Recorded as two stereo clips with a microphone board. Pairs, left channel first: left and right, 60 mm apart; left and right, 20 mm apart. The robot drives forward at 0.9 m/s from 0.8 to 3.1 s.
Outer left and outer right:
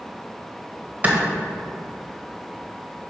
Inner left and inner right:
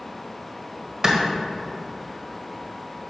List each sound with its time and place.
1.0 s a clap: 30° right (ahead or behind), 1.4 m